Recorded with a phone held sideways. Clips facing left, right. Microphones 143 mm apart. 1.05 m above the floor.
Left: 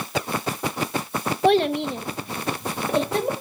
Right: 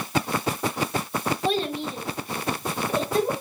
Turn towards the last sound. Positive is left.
turn(degrees=75)  # may be behind; listen again after turning